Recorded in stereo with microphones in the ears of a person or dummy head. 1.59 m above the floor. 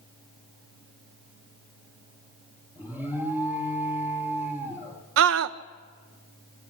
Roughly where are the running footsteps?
I don't hear running footsteps.